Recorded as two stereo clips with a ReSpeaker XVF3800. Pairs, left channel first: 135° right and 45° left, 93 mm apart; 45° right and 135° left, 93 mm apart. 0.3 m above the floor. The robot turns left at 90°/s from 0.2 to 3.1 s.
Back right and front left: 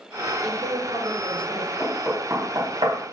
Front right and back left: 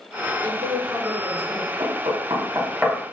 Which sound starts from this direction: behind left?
Knocking, at 1.8 s.